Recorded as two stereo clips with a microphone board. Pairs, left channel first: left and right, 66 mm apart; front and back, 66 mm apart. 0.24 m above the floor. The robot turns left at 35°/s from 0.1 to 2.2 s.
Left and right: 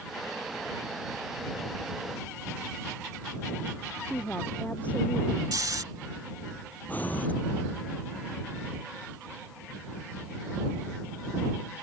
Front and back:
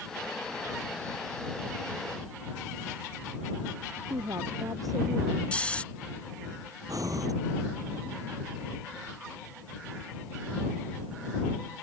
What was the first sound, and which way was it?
A woman speaking, 160° left.